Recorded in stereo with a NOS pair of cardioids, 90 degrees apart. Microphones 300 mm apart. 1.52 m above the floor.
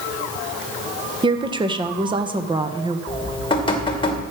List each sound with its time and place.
1.2 s a woman speaking: 15° right, 1.3 m
3.1 s dripping: 15° left, 2 m